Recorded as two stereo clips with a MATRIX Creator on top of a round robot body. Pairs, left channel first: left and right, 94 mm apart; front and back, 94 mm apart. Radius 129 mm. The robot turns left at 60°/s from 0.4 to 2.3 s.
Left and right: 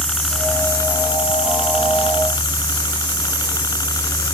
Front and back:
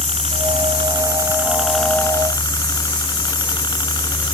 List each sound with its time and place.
0.0 s a helicopter: 175° left; by 4.3 s 40° left